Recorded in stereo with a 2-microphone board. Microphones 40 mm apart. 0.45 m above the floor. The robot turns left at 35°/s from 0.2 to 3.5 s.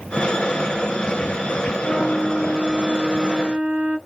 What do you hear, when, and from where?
1.8 s a flute: 30° left, 1.9 m; by 4.0 s 25° right, 1.9 m